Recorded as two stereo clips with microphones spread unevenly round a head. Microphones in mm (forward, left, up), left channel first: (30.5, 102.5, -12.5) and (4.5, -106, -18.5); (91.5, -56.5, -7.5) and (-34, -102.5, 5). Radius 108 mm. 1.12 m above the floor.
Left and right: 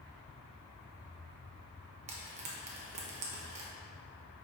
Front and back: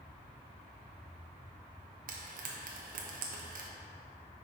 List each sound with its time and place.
2.1 s frying: 155° right, 0.8 m